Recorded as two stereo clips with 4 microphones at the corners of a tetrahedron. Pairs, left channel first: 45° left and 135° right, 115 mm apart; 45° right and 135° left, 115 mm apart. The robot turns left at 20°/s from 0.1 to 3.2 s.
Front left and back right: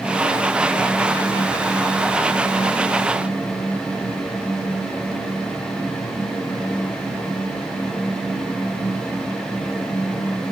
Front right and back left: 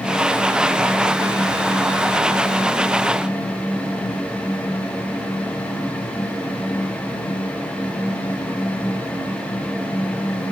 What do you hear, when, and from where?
Only background noise.